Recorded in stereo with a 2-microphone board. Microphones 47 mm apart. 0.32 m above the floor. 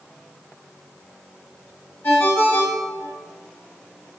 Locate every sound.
2.0 s a ringtone: 55° left (ahead or behind), 1.7 m